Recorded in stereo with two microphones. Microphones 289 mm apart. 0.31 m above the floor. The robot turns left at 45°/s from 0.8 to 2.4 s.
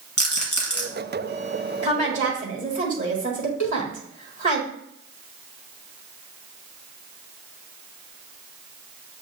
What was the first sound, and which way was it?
A rattle, 55° left (ahead or behind).